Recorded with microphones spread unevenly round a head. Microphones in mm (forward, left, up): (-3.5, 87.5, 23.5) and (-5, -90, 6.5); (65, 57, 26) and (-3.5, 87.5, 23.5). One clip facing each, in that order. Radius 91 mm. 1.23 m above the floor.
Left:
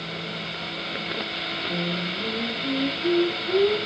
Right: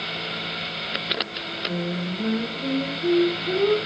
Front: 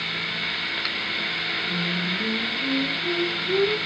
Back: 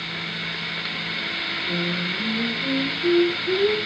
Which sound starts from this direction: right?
Singing, at 1.7 s.